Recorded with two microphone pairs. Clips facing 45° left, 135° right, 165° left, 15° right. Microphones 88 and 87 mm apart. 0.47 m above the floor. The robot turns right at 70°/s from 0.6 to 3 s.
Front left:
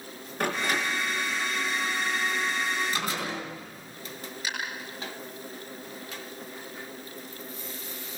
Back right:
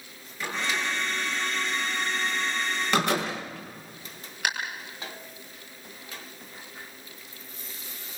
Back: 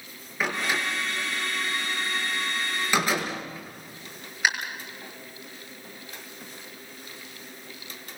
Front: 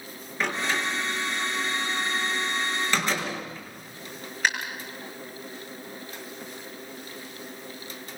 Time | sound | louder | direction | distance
0.4 | a door slam | front left 2 dB, even | 75° left | 6 m